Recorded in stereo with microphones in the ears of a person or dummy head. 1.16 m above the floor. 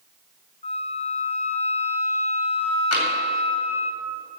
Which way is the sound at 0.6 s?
25° left (ahead or behind).